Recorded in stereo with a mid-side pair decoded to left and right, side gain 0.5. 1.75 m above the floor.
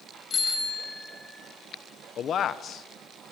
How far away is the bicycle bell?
About 6.5 m.